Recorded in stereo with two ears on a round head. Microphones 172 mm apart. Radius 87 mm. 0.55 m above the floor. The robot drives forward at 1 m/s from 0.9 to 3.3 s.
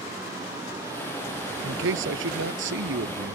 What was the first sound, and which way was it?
A man speaking, 75° right (ahead or behind).